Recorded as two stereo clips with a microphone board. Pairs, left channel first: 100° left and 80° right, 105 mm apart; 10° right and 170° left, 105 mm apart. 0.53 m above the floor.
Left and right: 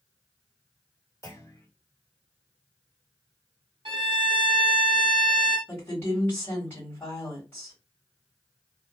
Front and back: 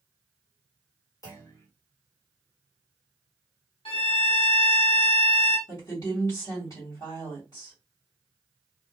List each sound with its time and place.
1.2 s a clunk: 45° left, 1.6 m
3.9 s a violin: 35° right, 1.1 m
5.7 s a woman speaking: 35° left, 1.7 m